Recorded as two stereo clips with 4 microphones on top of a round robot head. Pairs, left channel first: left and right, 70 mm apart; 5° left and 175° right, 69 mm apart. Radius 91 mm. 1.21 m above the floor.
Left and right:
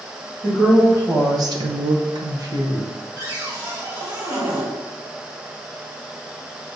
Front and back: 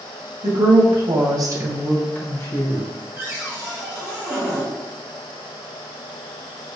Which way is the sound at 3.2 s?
120° right.